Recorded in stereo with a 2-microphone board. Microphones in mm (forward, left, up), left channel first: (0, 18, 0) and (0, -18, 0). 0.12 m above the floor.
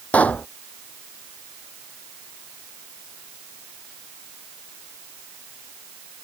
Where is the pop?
35° left (ahead or behind).